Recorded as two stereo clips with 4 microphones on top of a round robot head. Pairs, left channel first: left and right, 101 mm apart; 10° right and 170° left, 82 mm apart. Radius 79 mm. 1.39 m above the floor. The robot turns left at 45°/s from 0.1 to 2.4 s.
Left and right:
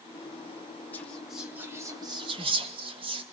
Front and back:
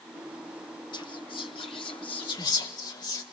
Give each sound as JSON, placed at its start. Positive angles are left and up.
{"t": 0.9, "sound": "whispering", "azimuth_deg": 15, "distance_m": 2.0}